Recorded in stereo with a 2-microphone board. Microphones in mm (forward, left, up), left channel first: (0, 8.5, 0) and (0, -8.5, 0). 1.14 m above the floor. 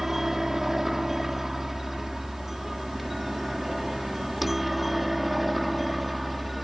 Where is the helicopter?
20° right (ahead or behind); by 6.7 s centre (ahead or behind).